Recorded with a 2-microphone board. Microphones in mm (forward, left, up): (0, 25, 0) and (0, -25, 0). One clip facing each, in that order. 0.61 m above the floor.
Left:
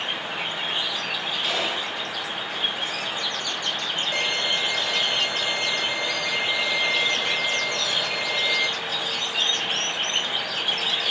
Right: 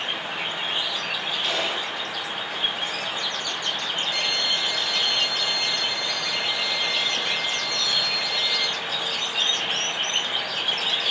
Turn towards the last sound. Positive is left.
turn(degrees=30)  # may be behind; listen again after turning